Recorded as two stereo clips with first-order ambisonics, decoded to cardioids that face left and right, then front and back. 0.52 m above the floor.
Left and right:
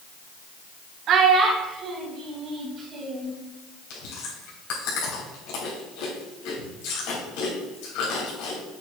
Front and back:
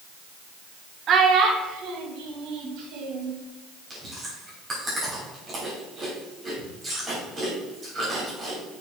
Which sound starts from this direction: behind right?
A child speaking, at 1.1 s.